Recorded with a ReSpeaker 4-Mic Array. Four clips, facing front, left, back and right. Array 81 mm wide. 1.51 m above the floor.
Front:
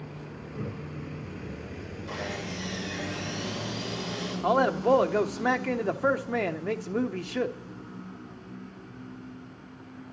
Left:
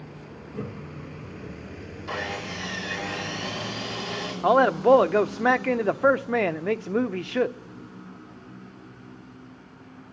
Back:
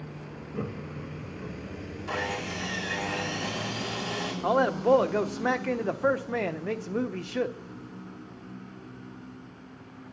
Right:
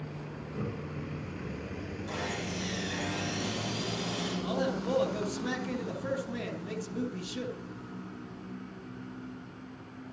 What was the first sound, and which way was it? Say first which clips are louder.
Laughter: left 2 dB, back 2 dB; 165° left.